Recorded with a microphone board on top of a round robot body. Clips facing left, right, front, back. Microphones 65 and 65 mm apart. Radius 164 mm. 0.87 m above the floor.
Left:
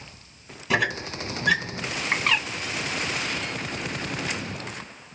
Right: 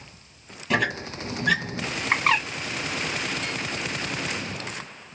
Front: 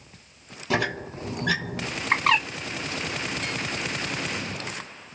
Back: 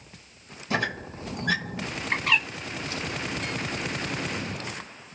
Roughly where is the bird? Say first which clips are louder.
Right 3 dB, front 4 dB; ahead right.